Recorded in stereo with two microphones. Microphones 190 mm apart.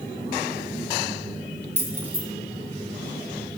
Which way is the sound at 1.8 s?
10° right (ahead or behind).